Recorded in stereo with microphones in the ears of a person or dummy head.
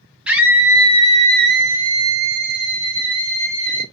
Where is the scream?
5° right (ahead or behind), 1.0 m; by 3.8 s 45° right (ahead or behind), 1.7 m.